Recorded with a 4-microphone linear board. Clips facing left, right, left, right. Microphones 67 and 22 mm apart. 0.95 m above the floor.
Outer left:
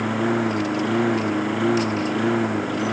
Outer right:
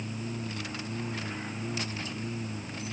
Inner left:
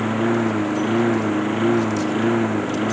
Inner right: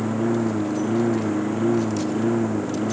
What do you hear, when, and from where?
0.0 s a lawn mower: 85° left